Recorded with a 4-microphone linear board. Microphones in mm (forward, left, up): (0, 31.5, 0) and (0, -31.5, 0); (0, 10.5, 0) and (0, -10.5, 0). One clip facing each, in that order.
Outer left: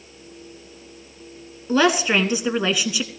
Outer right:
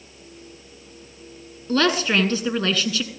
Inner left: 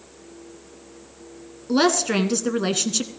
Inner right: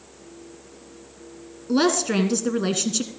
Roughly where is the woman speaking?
Centre.